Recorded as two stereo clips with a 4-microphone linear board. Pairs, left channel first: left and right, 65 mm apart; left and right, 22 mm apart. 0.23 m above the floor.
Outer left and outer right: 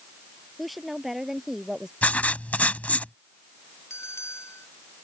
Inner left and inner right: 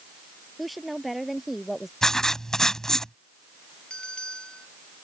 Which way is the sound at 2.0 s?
25° left (ahead or behind).